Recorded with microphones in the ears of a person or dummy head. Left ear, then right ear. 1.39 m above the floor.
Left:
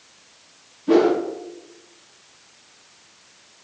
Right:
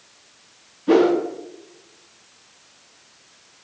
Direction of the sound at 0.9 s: 25° right (ahead or behind).